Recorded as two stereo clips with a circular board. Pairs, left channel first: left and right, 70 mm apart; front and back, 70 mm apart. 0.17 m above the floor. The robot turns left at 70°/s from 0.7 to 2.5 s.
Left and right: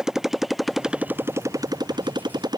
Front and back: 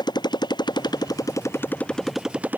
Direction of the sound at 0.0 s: 10° right.